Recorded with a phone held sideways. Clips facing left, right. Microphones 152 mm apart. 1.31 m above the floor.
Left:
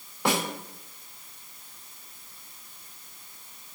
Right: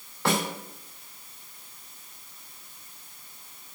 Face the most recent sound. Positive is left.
turn(degrees=15)  # may be behind; listen again after turning